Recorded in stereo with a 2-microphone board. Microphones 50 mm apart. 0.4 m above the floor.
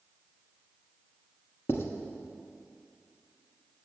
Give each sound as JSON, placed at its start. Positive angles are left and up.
{"t": 1.7, "sound": "writing", "side_deg": 60, "distance_m": 1.1}